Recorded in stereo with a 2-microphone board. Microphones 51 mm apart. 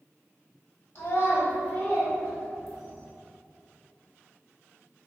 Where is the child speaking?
45° left (ahead or behind), 1.5 m; by 3.1 s centre (ahead or behind), 1.3 m.